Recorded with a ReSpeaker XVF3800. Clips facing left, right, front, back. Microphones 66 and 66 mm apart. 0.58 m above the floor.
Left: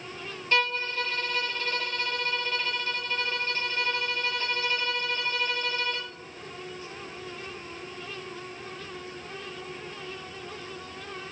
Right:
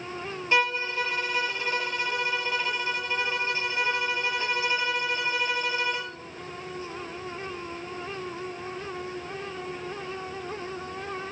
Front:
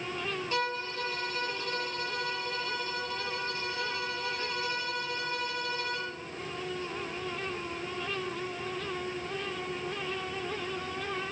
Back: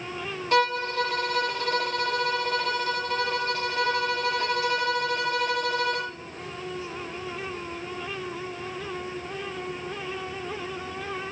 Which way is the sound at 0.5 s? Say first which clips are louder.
Right 2 dB, back 12 dB; 165° right.